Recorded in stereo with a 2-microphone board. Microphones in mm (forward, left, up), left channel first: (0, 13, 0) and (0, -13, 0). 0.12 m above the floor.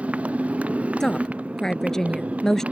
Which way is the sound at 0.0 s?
55° right (ahead or behind).